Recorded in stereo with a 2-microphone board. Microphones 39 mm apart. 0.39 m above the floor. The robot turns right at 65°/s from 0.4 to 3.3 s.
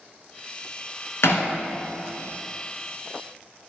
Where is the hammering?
85° left, 1.8 m; by 1.5 s 70° left (ahead or behind), 1.8 m.